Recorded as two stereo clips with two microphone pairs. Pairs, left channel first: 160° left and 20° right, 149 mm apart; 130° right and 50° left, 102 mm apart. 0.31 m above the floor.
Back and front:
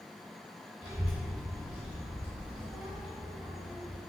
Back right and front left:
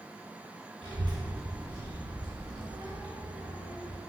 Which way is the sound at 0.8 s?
50° left.